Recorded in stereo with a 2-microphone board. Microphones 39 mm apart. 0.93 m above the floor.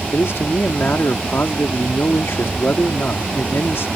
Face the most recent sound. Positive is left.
turn(degrees=75)  # may be behind; listen again after turning